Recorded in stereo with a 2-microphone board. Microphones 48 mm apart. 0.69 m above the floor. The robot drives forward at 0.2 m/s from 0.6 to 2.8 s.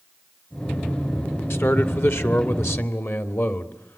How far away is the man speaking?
About 2 m.